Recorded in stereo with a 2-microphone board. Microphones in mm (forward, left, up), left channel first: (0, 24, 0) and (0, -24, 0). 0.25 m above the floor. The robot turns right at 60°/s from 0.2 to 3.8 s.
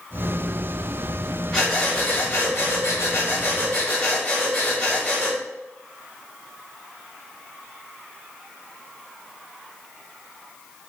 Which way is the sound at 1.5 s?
10° left.